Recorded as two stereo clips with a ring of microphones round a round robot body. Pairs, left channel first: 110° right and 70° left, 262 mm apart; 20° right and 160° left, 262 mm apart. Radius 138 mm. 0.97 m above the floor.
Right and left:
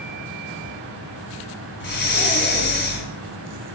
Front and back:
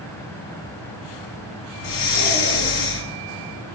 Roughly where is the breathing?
Ahead right.